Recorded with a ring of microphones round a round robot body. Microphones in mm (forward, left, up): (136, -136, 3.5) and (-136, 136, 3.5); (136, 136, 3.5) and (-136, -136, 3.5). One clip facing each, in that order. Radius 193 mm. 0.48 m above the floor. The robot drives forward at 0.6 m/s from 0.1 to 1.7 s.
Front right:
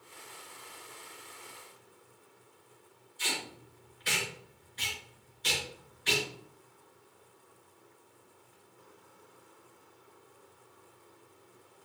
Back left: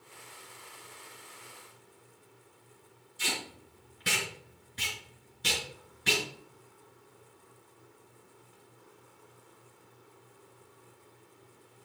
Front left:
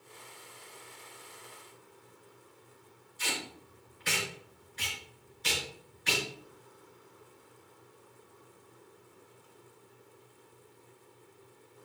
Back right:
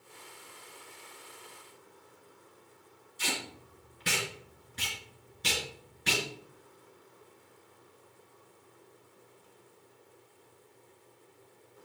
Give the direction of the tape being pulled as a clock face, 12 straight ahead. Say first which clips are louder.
Back left 1 dB, back right 1 dB; 6 o'clock.